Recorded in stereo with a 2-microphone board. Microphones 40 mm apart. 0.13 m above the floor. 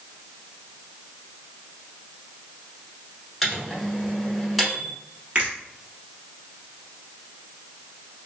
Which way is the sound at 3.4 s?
5° right (ahead or behind).